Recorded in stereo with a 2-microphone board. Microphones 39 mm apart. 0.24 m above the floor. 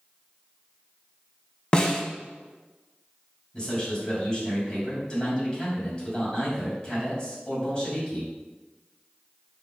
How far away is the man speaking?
About 1.8 m.